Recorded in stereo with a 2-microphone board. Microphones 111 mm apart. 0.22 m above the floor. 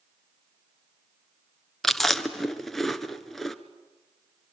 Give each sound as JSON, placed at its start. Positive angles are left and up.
{"t": 1.8, "sound": "chewing", "side_deg": 0, "distance_m": 1.2}